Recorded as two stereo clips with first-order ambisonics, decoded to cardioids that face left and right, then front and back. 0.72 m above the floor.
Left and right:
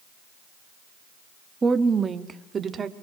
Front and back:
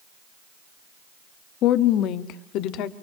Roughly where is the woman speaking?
Ahead.